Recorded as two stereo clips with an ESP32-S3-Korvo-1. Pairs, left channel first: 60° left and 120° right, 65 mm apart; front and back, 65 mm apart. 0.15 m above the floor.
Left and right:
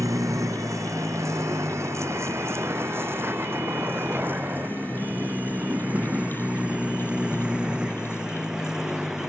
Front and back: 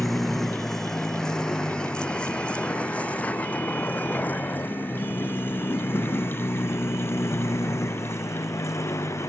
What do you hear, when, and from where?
0.0 s a vehicle: 90° right; by 9.3 s 40° right